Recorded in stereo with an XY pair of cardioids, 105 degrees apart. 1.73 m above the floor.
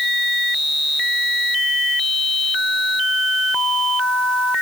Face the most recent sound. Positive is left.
No sound to turn to.